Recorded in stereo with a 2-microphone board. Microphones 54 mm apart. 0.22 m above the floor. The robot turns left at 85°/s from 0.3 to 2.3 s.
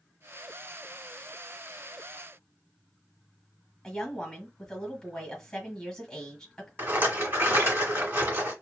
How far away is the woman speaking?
About 1.4 m.